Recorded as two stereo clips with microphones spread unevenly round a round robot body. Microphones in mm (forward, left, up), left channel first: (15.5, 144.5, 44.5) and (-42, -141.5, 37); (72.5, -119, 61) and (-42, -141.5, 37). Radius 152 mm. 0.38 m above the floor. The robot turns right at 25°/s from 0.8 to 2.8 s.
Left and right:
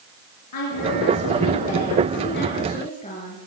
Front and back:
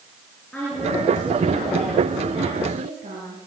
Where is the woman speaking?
95° left, 7.5 m; by 3.4 s 145° left, 7.5 m.